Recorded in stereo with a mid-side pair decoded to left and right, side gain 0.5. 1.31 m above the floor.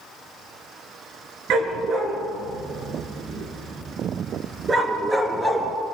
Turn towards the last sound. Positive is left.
turn(degrees=-25)